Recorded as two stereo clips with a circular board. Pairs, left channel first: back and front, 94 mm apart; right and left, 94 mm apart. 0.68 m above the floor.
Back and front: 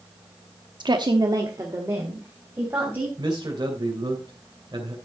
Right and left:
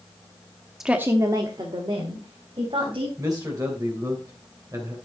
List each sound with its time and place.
0.8 s a woman speaking: 5° left, 0.9 m; by 3.1 s 65° left, 4 m
3.2 s a man speaking: 40° left, 2.5 m